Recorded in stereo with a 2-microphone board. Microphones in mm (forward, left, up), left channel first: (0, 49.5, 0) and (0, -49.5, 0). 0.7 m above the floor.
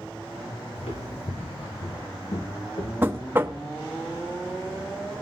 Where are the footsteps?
80° left, 3 m; by 2.9 s 65° left (ahead or behind), 3 m.